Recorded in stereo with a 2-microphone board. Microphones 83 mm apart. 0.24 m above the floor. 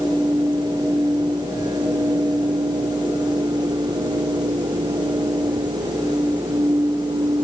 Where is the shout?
No shout in this recording.